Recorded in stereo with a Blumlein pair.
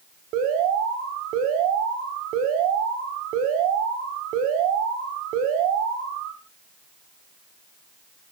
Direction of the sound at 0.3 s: 40° right.